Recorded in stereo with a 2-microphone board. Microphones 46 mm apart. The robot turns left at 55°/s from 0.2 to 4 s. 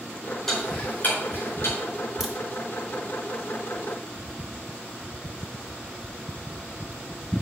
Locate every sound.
0.5 s ticking: 10° left (ahead or behind), 4 m; by 1.8 s 80° left, 4 m
2.2 s a crack: 5° right (ahead or behind), 1.4 m; by 2.3 s centre (ahead or behind), 1.4 m